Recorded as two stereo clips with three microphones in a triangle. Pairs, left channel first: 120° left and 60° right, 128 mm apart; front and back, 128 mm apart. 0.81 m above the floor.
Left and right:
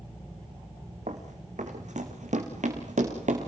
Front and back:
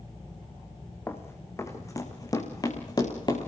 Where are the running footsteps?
70° right, 3.5 m; by 3.5 s 55° right, 5 m.